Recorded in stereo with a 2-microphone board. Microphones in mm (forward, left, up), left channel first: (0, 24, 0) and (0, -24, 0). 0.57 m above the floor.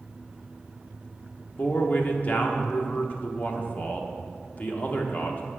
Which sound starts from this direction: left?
A man speaking, at 1.6 s.